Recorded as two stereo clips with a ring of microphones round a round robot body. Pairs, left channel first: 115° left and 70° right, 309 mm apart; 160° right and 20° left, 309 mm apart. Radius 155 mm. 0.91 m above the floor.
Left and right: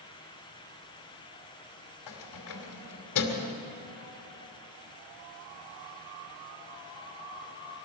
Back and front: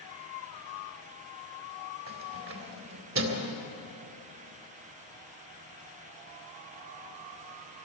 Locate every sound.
2.1 s keys jangling: 75° left, 2.5 m